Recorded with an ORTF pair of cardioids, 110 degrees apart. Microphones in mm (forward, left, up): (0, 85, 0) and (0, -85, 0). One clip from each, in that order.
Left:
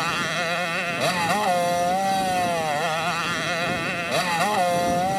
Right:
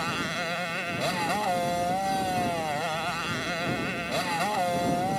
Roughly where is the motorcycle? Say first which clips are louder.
Left 6 dB; ahead left.